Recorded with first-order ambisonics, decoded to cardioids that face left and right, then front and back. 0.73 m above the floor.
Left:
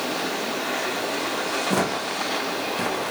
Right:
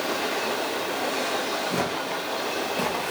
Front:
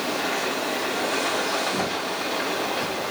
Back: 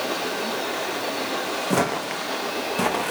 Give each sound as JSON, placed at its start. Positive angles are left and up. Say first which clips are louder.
{"t": 1.7, "sound": "footsteps", "louder": "left 3 dB, back 2 dB", "azimuth_deg": 145, "distance_m": 2.0}